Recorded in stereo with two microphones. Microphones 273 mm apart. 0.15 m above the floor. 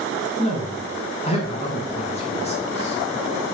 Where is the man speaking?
25° left (ahead or behind), 1.2 m.